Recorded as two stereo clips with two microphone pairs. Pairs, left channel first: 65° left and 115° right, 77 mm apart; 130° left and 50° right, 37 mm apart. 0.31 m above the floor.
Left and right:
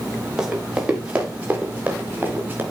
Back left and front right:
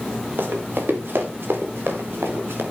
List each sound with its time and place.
0.4 s running footsteps: 35° right, 3.5 m; by 2.6 s 50° right, 5 m